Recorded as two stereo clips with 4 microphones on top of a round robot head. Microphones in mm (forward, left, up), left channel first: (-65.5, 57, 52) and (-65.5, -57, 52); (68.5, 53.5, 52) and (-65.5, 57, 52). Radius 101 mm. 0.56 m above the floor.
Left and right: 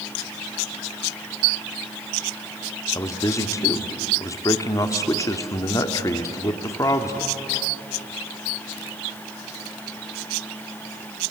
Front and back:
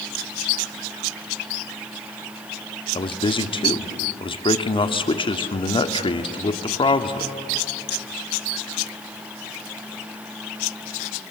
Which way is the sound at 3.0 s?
35° left.